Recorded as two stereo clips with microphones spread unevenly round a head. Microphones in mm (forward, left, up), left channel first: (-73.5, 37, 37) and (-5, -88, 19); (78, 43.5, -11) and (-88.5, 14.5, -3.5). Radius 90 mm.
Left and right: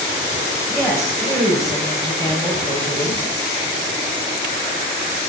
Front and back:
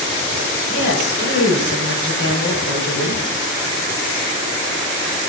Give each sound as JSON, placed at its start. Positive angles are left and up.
{"t": 0.7, "sound": "a woman speaking", "azimuth_deg": 25, "distance_m": 6.5}